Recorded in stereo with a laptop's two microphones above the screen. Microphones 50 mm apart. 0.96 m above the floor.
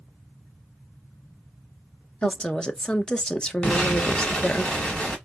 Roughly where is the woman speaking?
Centre.